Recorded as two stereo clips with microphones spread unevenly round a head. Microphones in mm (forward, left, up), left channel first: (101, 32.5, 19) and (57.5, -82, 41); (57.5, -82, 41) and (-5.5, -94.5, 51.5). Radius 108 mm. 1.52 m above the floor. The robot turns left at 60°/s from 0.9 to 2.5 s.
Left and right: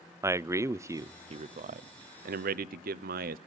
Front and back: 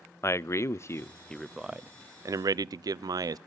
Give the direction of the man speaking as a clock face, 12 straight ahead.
1 o'clock.